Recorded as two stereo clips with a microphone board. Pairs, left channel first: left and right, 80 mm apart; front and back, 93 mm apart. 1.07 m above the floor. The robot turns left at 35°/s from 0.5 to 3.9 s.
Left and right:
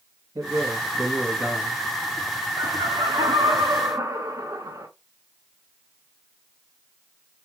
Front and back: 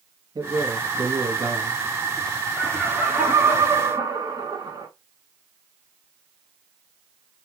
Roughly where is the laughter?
Right.